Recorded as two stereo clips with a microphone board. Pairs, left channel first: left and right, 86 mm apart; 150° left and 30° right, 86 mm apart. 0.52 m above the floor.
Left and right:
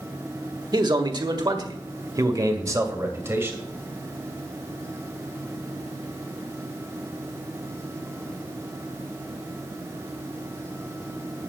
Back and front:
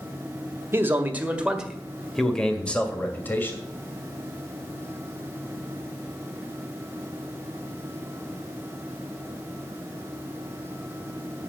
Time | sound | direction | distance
0.7 | a man speaking | 85° right | 1.7 m